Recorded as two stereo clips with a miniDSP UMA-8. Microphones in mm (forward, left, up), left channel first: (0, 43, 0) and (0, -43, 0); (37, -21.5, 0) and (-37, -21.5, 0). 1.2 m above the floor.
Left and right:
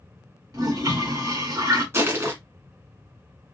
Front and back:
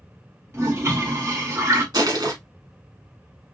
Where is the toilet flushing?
130° right, 1.4 m.